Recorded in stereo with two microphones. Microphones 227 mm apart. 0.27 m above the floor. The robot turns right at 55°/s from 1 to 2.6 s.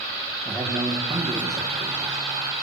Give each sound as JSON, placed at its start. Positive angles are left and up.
{"t": 0.5, "sound": "a man speaking", "side_deg": 0, "distance_m": 10.0}